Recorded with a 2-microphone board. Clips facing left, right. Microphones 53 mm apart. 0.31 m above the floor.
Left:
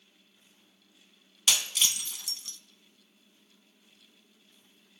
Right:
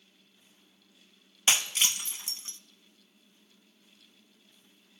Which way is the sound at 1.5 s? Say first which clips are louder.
Right 1 dB; 35° right (ahead or behind).